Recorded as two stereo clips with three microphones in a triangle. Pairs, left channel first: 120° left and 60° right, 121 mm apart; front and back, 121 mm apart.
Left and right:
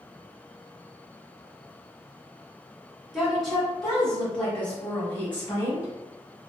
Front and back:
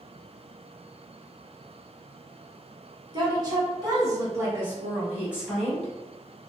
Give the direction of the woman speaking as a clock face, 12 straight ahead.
5 o'clock.